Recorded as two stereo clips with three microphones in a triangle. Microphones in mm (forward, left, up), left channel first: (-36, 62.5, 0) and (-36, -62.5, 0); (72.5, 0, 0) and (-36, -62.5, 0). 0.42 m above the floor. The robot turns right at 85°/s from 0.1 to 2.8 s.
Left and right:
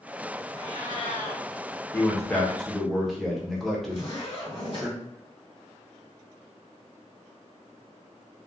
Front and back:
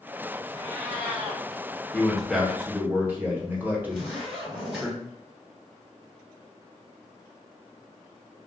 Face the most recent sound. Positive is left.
turn(degrees=125)